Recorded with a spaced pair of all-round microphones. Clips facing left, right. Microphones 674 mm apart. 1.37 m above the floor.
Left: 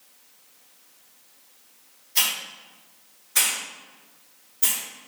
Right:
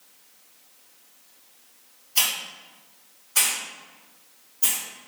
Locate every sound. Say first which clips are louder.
2.1 s a hiss: even; 45° left (ahead or behind), 1.6 m